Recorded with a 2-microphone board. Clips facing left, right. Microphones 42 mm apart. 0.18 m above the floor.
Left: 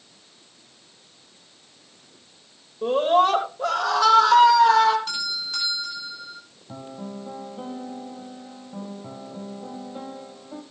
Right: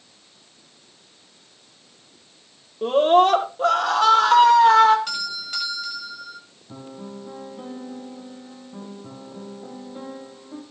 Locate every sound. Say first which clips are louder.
2.8 s a scream: right 3 dB; 45° right (ahead or behind), 6.5 m; by 5.0 s 30° right (ahead or behind), 7 m
5.1 s a doorbell: even; 70° right (ahead or behind), 9.5 m
6.7 s a piano: left 1 dB; 15° left (ahead or behind), 4 m